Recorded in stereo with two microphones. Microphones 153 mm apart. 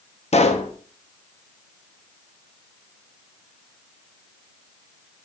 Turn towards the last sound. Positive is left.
turn(degrees=45)  # may be behind; listen again after turning